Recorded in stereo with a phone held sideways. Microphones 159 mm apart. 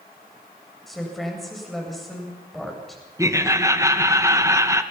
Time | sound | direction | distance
0.9 | a woman speaking | centre (ahead or behind) | 8 m
3.2 | laughter | 20° right (ahead or behind) | 1.7 m